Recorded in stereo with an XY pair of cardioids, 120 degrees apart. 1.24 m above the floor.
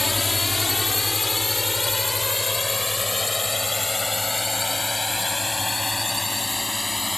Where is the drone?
20° left; by 7.2 s 15° left.